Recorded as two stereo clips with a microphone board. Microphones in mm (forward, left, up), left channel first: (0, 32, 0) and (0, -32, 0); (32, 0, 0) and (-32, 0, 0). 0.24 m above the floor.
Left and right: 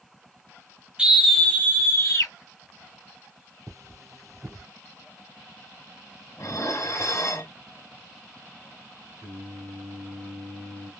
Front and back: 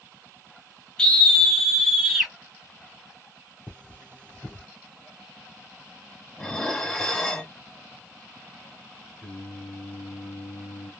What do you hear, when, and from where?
1.0 s a scream: 45° right, 0.9 m; by 2.3 s 95° left, 1.5 m
3.7 s cutlery clinking: 70° right, 2 m
6.4 s dishes clattering: 75° left, 1.2 m
9.2 s singing: 60° right, 2 m